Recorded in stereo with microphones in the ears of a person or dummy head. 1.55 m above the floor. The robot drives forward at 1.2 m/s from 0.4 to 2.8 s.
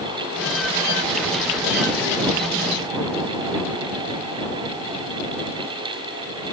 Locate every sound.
Only background noise.